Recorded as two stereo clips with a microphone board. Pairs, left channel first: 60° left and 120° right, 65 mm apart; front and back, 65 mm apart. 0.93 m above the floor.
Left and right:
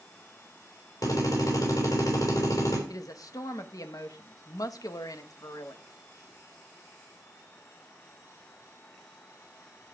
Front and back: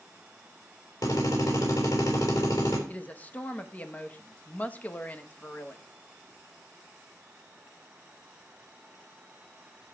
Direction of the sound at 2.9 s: 65° left.